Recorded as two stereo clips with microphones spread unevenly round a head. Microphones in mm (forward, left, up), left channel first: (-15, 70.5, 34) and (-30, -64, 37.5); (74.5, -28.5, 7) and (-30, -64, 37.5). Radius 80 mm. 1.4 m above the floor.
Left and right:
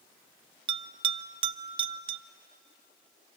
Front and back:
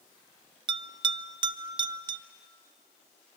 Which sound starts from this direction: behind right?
A bell, at 0.7 s.